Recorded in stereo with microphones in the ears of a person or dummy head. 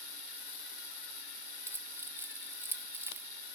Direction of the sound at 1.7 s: 10° right (ahead or behind).